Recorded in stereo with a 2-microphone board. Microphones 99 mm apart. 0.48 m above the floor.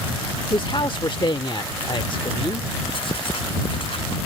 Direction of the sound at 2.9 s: 55° left (ahead or behind).